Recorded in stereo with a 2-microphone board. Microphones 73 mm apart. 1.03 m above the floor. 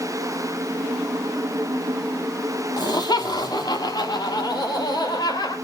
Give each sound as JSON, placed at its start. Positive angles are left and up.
{"t": 2.8, "sound": "laughter", "side_deg": 80, "distance_m": 2.0}